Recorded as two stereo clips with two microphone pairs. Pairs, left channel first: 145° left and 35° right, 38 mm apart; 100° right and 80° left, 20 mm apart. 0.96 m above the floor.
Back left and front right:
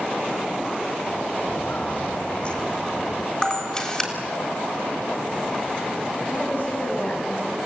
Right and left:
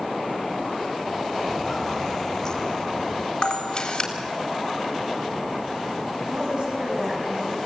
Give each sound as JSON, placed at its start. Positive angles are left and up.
{"t": 1.4, "sound": "footsteps", "azimuth_deg": 170, "distance_m": 2.5}
{"t": 3.4, "sound": "a camera shutter", "azimuth_deg": -145, "distance_m": 3.5}
{"t": 6.3, "sound": "a woman speaking", "azimuth_deg": 110, "distance_m": 6.5}